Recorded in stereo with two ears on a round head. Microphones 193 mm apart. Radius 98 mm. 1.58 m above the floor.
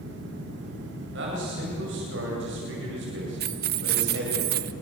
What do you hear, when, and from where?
1.1 s a man speaking: 55° right (ahead or behind), 9 m
3.4 s keys jangling: 45° right (ahead or behind), 0.9 m